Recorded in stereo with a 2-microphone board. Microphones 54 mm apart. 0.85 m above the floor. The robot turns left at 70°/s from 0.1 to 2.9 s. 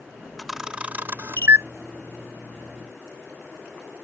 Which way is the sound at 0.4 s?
Centre (ahead or behind).